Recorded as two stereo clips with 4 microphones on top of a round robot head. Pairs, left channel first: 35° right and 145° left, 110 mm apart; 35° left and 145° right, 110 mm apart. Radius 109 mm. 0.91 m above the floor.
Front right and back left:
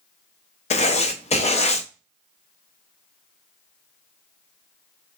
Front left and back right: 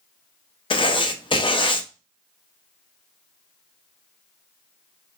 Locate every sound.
0.7 s writing: 10° right, 0.6 m